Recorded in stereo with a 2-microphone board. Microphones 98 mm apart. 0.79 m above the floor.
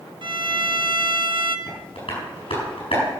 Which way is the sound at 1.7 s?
70° left (ahead or behind).